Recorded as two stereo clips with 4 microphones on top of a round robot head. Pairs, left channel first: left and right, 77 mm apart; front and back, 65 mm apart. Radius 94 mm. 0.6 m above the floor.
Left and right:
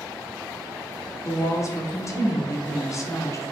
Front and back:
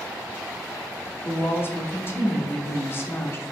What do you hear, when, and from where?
1.2 s a woman speaking: 50° left, 0.9 m